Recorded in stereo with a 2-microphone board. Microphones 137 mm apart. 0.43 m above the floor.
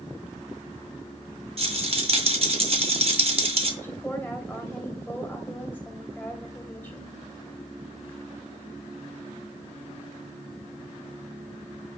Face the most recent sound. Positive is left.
turn(degrees=15)  # may be behind; listen again after turning